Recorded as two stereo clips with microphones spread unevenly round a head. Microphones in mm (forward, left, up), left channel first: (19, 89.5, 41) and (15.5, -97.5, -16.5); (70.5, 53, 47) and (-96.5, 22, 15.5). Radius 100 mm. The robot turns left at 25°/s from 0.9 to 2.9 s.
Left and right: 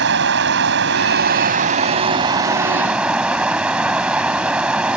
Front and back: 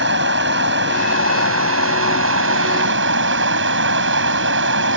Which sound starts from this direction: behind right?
Running water, at 0.0 s.